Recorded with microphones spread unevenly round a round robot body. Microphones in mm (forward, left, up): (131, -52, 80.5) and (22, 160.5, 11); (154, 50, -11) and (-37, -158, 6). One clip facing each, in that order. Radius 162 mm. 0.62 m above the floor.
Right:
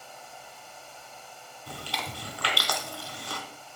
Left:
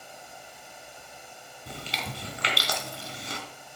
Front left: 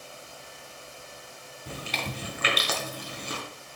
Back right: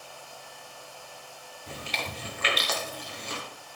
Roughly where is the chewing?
Ahead left.